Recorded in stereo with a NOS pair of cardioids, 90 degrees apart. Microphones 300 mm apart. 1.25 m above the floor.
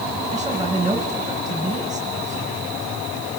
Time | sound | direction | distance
0.3 | a man speaking | 15° right | 6 m